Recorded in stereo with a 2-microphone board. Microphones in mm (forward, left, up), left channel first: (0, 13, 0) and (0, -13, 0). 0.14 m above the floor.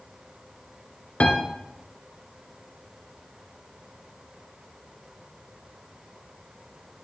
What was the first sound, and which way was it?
A piano, 50° left (ahead or behind).